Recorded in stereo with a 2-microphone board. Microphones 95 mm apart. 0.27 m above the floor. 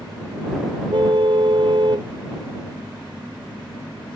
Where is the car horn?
65° right (ahead or behind).